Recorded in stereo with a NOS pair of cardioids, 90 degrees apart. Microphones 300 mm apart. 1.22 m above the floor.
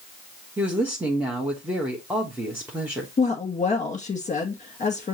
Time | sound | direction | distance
0.6 | a woman speaking | 5° right | 1.3 m
3.2 | a woman speaking | 25° left | 1.8 m